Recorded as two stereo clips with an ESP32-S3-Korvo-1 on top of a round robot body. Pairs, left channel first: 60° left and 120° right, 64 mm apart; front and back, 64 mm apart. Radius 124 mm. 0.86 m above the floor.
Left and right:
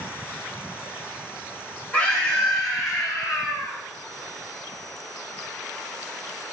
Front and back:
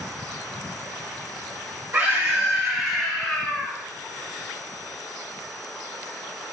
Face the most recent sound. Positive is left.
turn(degrees=60)